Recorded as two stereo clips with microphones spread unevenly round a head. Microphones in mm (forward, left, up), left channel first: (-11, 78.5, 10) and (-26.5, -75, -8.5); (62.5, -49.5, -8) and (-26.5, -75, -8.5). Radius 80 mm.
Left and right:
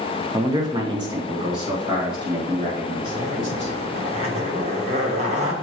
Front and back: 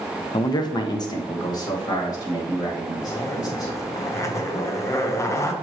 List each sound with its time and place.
0.3 s a man speaking: 20° right, 0.6 m; by 3.7 s 30° right, 4 m
3.0 s a zipper: 45° right, 1.1 m